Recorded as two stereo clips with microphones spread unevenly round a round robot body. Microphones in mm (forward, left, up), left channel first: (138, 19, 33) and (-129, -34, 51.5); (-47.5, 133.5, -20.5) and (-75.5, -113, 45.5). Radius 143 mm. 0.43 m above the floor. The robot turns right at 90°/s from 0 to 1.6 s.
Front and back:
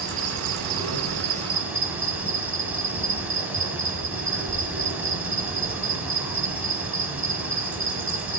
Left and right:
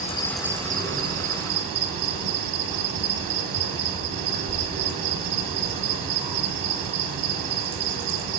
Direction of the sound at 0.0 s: 130° left.